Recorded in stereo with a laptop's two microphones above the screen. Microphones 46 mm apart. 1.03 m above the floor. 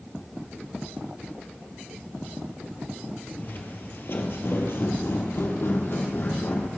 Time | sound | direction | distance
3.4 | footsteps | 45° left (ahead or behind) | 1.6 m